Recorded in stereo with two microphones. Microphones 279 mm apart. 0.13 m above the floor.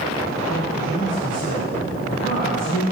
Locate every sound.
0.5 s a man speaking: 30° left (ahead or behind), 3.5 m